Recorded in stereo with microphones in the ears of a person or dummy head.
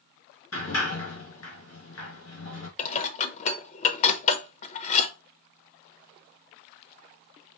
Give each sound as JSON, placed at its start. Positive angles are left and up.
{"t": 0.5, "sound": "a sliding door", "side_deg": 85, "distance_m": 2.5}
{"t": 2.8, "sound": "dishes clattering", "side_deg": 40, "distance_m": 0.8}